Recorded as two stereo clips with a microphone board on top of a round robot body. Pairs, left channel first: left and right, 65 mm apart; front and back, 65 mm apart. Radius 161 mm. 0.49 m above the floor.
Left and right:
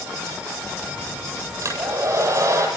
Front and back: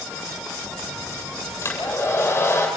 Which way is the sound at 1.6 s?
50° right.